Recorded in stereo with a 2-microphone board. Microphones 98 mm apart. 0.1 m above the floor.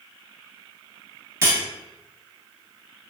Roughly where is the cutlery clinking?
Right.